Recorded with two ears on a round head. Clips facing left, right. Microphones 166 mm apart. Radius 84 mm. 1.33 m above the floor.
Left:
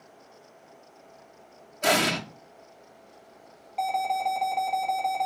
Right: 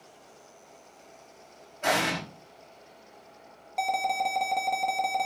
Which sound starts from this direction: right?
An alarm, at 3.8 s.